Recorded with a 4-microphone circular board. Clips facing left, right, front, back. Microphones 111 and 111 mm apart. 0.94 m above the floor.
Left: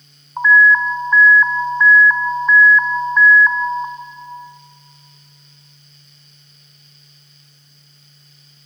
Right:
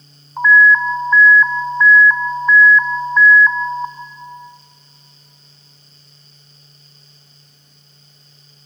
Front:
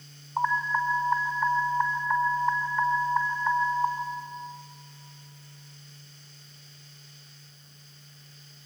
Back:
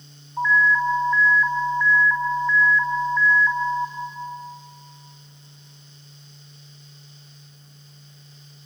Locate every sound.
0.4 s an alarm: 15° left, 1.5 m